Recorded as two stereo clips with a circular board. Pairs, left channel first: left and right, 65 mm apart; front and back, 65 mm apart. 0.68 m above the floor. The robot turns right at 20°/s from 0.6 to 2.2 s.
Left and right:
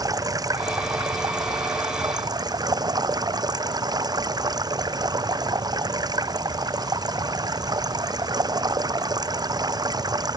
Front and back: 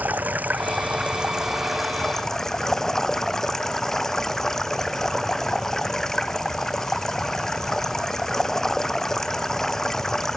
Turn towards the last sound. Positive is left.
turn(degrees=-85)